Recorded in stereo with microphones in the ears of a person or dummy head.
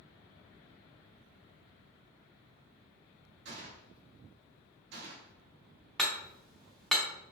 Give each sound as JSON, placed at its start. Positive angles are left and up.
{"t": 3.5, "sound": "a gunshot", "side_deg": -55, "distance_m": 0.8}
{"t": 6.0, "sound": "hammering", "side_deg": 5, "distance_m": 1.1}